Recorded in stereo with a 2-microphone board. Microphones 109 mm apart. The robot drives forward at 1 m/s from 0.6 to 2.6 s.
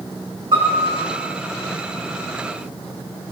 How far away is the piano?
About 5.5 m.